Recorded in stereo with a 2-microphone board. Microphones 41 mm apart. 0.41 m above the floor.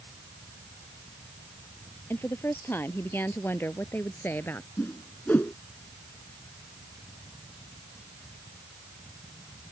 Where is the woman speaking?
65° left (ahead or behind); by 4.7 s 60° left (ahead or behind).